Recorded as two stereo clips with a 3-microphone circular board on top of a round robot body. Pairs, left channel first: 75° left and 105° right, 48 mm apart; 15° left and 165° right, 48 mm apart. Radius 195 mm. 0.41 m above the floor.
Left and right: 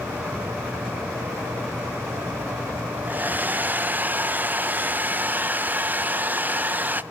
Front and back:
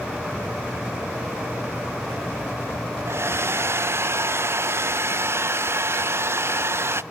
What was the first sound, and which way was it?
A hair dryer, 150° right.